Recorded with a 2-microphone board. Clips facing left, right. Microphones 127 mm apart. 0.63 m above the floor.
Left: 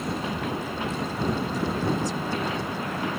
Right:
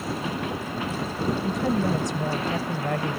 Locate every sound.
1.4 s a woman speaking: 65° right (ahead or behind)